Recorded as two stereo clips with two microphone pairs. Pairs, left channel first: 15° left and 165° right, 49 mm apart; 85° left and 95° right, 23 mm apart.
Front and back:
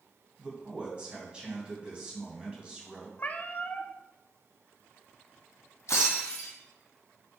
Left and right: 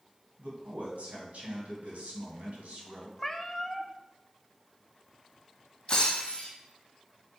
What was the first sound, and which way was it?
A man speaking, 100° right.